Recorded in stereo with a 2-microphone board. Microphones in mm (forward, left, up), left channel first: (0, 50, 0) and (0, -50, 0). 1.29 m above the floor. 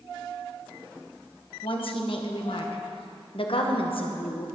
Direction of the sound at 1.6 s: 65° left (ahead or behind).